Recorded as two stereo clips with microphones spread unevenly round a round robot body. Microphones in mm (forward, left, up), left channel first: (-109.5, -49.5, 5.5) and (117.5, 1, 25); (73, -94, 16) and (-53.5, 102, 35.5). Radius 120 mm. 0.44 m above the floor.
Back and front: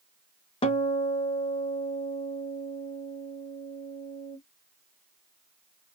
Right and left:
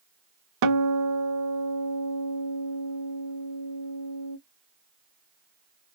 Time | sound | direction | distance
0.6 | a guitar | 125° left | 0.6 m